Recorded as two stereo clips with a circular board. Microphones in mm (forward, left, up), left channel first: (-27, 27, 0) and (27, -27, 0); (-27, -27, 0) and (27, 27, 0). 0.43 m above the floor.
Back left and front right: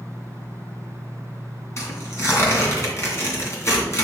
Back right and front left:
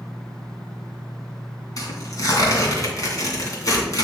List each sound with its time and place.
1.8 s tearing paper: 170° right, 2.5 m